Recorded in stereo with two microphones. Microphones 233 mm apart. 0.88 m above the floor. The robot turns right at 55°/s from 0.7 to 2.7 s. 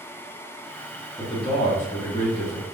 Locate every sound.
1.2 s a man speaking: 20° left, 1.0 m; by 2.6 s 100° left, 1.0 m